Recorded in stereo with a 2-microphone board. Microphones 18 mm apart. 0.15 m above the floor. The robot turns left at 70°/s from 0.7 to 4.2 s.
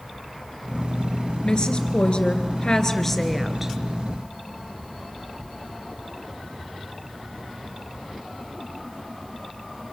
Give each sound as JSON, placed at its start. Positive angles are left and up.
{"t": 1.4, "sound": "a woman speaking", "azimuth_deg": 135, "distance_m": 3.0}